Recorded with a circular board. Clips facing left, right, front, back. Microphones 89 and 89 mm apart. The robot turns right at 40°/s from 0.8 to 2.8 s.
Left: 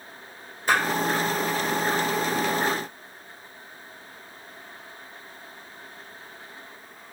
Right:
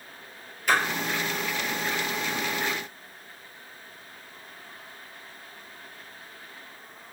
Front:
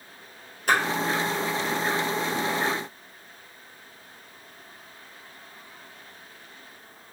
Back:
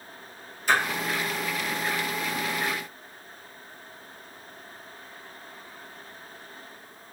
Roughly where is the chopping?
I don't hear chopping.